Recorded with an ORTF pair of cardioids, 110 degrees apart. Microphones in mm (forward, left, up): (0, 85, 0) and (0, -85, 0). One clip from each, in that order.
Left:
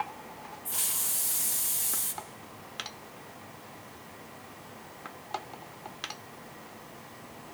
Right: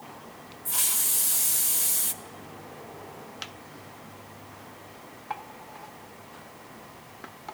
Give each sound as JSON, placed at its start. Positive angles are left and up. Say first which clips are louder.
{"t": 0.7, "sound": "a hiss", "louder": "right 5 dB", "azimuth_deg": -20, "distance_m": 0.6}